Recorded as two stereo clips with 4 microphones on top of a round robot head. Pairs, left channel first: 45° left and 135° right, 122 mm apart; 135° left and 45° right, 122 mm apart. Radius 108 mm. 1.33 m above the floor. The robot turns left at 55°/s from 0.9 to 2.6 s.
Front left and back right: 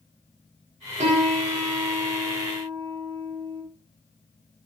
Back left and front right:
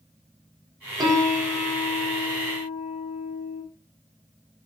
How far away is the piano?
About 4 m.